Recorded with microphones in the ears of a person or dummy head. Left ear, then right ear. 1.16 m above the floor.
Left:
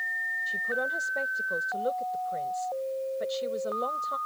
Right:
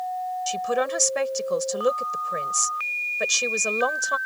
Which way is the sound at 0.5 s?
70° right (ahead or behind).